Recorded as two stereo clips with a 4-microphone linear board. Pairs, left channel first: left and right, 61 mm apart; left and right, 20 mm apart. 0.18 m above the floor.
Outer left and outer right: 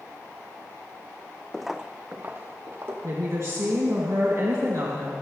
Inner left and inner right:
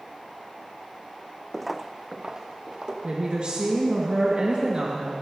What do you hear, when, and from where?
1.5 s footsteps: 15° left (ahead or behind), 0.5 m; by 2.9 s 40° right (ahead or behind), 2.5 m
3.0 s a woman speaking: 60° right (ahead or behind), 2.5 m